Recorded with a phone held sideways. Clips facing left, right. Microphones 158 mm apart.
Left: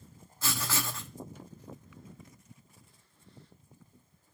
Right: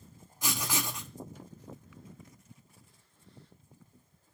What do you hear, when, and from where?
0.4 s writing: 15° right (ahead or behind), 0.9 m